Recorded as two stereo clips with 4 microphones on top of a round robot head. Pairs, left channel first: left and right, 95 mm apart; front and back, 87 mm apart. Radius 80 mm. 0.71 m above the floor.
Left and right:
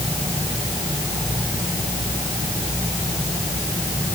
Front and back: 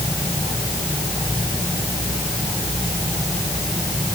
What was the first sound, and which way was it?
Only background noise.